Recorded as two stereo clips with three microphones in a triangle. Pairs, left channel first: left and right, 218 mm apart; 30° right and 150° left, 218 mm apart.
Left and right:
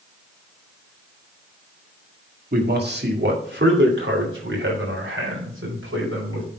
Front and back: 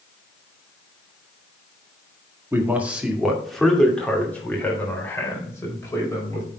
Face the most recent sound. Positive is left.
turn(degrees=-105)